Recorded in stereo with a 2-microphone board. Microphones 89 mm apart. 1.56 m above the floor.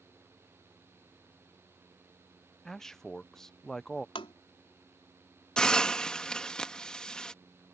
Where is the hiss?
10° left (ahead or behind).